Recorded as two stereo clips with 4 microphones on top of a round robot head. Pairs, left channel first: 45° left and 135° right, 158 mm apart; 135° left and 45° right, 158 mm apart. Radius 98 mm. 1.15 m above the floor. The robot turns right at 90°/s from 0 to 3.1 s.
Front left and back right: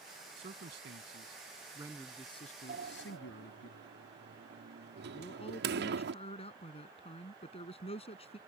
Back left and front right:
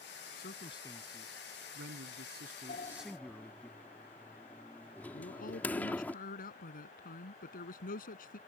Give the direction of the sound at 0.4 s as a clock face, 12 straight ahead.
7 o'clock.